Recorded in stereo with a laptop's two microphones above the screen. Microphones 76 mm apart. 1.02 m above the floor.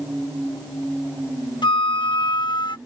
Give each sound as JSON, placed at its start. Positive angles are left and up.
{"t": 1.6, "sound": "a flute", "side_deg": 80}